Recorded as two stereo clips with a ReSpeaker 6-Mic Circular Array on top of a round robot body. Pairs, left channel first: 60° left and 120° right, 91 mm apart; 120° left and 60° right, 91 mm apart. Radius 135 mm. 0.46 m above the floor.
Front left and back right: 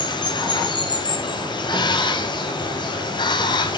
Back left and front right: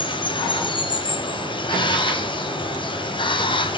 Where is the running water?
95° left, 2.5 m.